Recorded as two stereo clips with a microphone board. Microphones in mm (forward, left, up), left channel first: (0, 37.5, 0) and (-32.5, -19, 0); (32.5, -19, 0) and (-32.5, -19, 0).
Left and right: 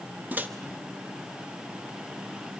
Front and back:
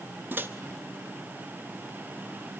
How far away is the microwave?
About 0.6 m.